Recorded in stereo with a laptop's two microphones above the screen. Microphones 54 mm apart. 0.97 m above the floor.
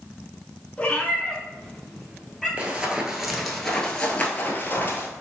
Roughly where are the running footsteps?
Right.